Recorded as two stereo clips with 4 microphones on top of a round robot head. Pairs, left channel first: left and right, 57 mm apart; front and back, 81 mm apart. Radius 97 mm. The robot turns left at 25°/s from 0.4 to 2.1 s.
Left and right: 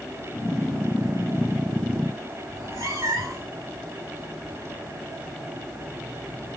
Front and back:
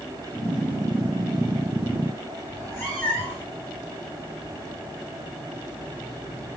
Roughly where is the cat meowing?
Right.